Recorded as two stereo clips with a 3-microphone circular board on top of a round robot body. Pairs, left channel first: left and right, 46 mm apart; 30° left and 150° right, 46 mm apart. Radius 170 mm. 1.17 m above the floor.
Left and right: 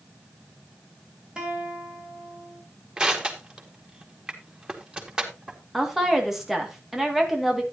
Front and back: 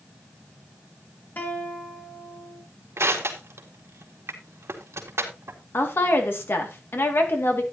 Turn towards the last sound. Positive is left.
turn(degrees=-5)